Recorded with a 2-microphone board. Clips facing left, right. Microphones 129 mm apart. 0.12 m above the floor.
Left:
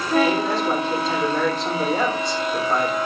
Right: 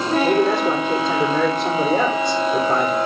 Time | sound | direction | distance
0.2 | a man speaking | 55° right (ahead or behind) | 4 m